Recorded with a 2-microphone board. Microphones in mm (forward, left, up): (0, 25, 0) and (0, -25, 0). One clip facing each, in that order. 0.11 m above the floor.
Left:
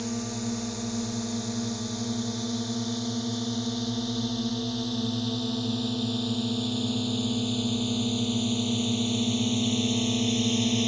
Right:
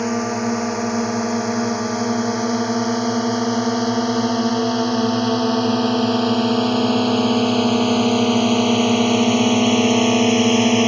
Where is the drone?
55° right (ahead or behind); by 10.9 s 60° right (ahead or behind).